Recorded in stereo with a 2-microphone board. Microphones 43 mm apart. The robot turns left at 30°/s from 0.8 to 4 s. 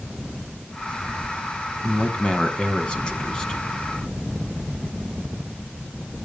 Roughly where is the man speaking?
Left.